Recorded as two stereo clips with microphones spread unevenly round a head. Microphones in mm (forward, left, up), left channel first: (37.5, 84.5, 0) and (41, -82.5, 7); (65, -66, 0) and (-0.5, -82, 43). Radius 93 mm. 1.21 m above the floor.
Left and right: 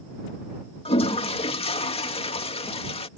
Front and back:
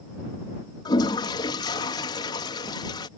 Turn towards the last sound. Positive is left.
turn(degrees=35)